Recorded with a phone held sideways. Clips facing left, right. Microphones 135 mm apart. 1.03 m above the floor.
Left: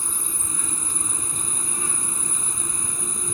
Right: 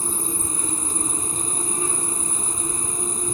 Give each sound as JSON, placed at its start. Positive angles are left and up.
{"t": 0.0, "sound": "an insect", "side_deg": -40}